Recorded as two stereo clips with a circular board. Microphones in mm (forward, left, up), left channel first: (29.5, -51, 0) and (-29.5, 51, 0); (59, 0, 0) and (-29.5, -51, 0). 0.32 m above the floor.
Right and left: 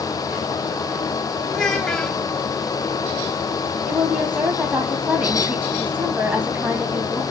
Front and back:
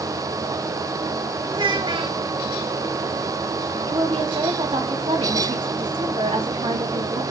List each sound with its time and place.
1.5 s a child speaking: 145° right, 1.5 m
3.9 s a woman speaking: 165° right, 2.5 m